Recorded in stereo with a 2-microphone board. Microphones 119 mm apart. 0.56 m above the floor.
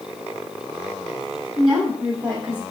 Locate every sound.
1.6 s a woman speaking: 30° right (ahead or behind), 1.7 m